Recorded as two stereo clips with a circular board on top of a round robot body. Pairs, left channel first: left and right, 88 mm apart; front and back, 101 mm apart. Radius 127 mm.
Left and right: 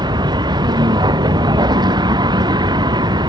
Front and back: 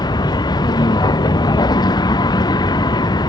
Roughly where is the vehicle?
Ahead right.